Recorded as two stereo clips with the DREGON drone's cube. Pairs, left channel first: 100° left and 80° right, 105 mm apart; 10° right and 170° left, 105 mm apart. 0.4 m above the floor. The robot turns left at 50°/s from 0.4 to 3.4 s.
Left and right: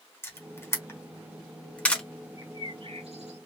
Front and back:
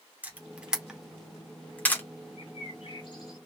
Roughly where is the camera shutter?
Behind left.